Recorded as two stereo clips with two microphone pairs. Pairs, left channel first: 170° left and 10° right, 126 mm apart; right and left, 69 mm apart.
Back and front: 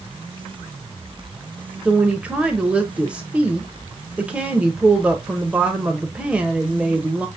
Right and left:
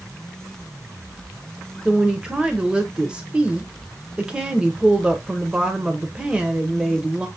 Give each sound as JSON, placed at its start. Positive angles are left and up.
{"t": 1.9, "sound": "a woman speaking", "azimuth_deg": 50, "distance_m": 0.8}